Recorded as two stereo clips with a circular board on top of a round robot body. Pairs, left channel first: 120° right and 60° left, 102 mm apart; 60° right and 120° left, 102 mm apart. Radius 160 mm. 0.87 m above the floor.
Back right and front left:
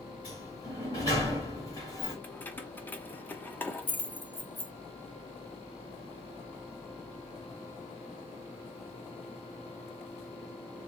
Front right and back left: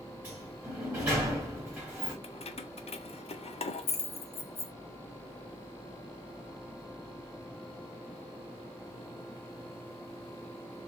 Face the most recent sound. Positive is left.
turn(degrees=-45)